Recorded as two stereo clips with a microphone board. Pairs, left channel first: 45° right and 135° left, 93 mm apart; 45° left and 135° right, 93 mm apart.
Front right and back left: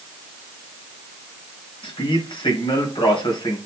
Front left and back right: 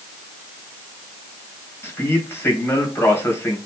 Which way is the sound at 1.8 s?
20° right.